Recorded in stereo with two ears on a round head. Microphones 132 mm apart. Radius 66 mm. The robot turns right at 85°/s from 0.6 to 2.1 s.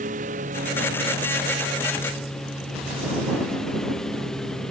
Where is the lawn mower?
125° right; by 4.7 s 5° left.